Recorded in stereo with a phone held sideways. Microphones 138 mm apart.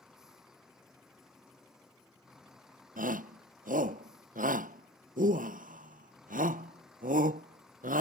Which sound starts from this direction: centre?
A vehicle, at 0.0 s.